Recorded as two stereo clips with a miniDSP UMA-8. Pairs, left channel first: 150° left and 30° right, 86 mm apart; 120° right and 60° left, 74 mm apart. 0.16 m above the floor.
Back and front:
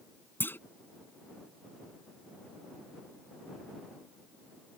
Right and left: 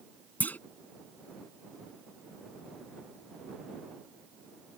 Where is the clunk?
165° right.